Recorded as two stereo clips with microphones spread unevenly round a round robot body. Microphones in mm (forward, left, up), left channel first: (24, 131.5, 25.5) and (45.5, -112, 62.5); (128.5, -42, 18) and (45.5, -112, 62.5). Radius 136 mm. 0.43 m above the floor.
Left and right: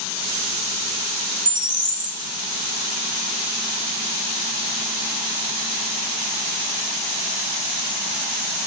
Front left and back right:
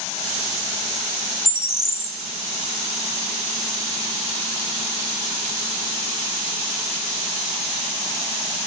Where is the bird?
10° right, 1.0 m.